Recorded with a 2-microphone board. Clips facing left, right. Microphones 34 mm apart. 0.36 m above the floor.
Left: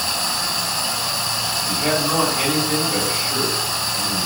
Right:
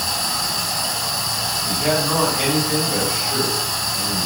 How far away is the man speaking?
About 1.4 m.